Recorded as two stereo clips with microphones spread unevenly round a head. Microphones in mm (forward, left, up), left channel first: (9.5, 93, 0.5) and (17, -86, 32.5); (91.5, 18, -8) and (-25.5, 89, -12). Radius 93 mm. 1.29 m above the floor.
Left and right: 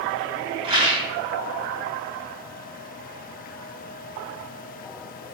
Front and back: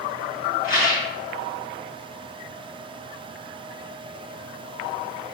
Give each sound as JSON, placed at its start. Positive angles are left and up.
{"t": 0.6, "sound": "a rattle", "azimuth_deg": -35, "distance_m": 3.0}